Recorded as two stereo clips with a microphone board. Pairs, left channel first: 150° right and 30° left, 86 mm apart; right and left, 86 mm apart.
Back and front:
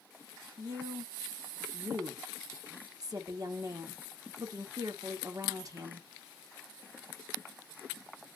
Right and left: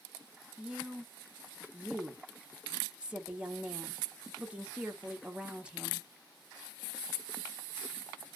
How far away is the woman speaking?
About 1.0 m.